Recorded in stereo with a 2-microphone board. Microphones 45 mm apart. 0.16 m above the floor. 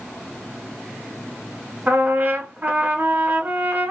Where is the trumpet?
35° right (ahead or behind), 1.5 m.